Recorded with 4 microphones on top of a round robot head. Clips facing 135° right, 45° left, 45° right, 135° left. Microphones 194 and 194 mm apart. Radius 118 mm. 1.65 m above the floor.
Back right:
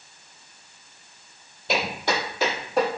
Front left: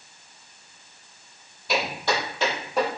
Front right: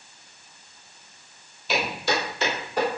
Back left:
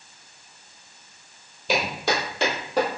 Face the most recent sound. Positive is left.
turn(degrees=135)